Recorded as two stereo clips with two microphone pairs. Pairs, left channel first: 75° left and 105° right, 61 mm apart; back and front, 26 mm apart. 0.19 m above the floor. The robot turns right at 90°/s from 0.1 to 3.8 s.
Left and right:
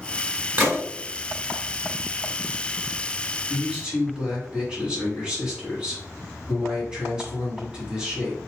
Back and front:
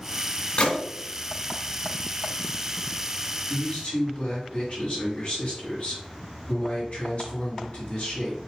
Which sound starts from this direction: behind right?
A gunshot, at 0.6 s.